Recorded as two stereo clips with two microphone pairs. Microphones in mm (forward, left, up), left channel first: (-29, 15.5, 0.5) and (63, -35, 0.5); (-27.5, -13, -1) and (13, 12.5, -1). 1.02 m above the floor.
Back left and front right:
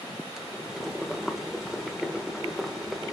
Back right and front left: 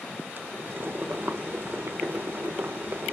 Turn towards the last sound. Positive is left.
turn(degrees=55)